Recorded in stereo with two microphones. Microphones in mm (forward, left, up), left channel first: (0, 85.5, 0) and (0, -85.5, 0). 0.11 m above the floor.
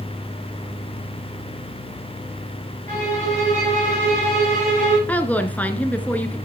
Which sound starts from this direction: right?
A violin, at 2.9 s.